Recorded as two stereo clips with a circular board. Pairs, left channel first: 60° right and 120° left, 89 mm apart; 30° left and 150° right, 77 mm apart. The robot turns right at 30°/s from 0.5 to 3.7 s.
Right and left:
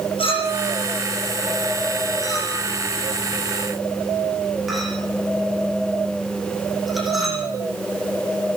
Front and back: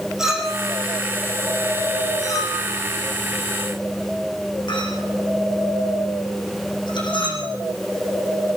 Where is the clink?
65° right, 7.5 m; by 7.4 s 30° left, 7.5 m.